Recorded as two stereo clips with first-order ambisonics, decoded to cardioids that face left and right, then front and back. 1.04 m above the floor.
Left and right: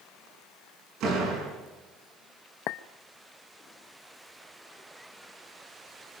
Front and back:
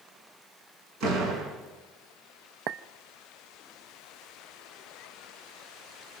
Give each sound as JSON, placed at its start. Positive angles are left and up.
{"t": 1.0, "sound": "a door slam", "azimuth_deg": -135, "distance_m": 8.5}
{"t": 2.7, "sound": "a clink", "azimuth_deg": 135, "distance_m": 0.5}